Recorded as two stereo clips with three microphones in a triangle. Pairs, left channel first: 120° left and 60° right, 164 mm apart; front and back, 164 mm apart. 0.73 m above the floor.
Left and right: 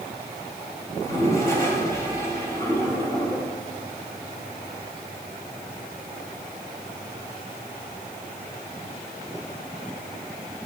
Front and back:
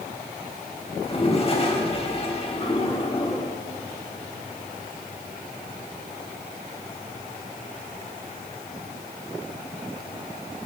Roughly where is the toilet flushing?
Ahead left.